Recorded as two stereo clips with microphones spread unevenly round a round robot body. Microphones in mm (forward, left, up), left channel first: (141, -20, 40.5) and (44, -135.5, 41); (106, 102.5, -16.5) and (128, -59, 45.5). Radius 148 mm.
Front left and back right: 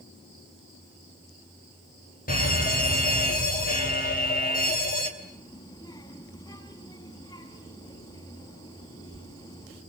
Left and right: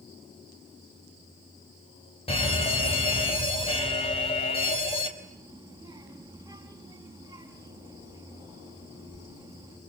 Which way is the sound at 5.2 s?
10° right.